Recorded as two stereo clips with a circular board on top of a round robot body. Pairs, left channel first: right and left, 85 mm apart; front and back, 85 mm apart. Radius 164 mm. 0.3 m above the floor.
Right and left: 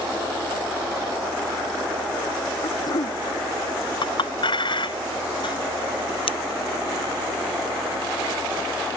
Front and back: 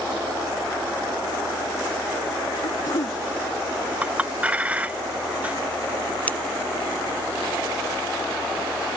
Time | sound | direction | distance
2.6 | throat clearing | 45° right | ?
4.0 | a clink | 110° right | ?
6.3 | scissors | 75° right | ?